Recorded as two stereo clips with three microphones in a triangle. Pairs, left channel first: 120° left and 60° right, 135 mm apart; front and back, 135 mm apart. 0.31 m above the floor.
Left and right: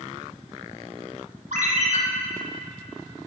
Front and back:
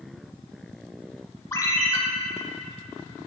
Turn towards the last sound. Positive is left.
turn(degrees=-65)